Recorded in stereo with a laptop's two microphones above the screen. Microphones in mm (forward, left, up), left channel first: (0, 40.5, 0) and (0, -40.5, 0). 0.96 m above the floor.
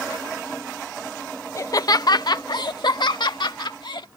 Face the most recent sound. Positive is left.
turn(degrees=75)  # may be behind; listen again after turning